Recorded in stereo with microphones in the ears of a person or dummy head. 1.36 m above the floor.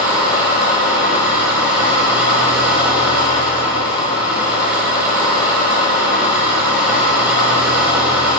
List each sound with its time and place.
0.0 s an engine running: 5° right (ahead or behind), 7 m